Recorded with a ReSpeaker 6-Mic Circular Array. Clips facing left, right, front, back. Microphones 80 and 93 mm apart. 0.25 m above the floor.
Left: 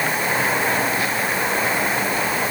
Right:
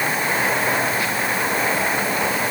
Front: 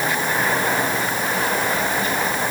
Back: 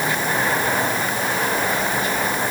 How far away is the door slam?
I don't hear a door slam.